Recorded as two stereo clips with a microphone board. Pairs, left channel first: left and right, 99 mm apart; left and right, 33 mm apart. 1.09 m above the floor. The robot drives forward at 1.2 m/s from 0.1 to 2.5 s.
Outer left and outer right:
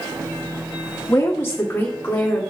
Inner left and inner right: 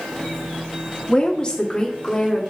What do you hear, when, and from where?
1.1 s a woman speaking: 30° left (ahead or behind), 1.8 m; by 2.4 s 15° left (ahead or behind), 3 m